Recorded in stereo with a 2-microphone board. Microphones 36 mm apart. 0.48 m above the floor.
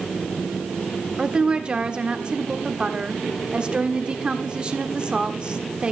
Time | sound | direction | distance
1.2 | a woman speaking | 25° right (ahead or behind) | 1.2 m